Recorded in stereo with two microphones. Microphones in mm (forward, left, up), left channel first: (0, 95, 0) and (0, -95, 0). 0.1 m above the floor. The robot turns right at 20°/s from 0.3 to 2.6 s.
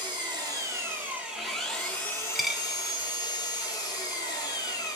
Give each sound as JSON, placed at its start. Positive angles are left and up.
{"t": 0.0, "sound": "an engine running", "azimuth_deg": -25, "distance_m": 1.1}
{"t": 2.4, "sound": "a dropped coin", "side_deg": 0, "distance_m": 0.8}